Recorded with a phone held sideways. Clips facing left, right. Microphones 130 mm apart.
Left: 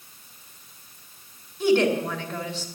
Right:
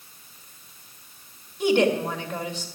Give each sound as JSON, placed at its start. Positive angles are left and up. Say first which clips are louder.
{"t": 1.6, "sound": "a woman speaking", "louder": "even", "side_deg": -15, "distance_m": 2.5}